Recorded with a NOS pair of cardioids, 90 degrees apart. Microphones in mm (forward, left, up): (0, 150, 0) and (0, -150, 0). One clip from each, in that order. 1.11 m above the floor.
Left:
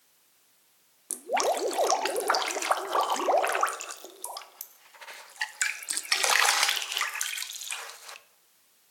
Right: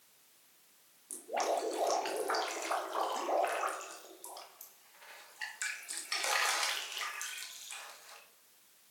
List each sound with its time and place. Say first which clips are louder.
1.1 s dripping: left 7 dB; 55° left, 0.6 m